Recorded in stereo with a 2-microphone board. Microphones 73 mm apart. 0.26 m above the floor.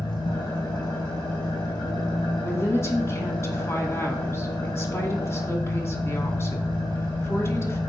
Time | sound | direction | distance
0.0 | an engine running | 85° left | 4.5 m
2.4 | a woman speaking | 35° left (ahead or behind) | 2 m